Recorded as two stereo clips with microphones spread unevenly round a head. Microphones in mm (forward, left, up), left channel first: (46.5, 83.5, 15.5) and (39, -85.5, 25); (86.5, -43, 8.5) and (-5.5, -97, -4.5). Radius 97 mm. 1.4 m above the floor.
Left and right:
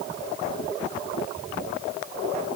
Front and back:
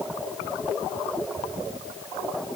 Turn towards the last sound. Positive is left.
No sound to turn to.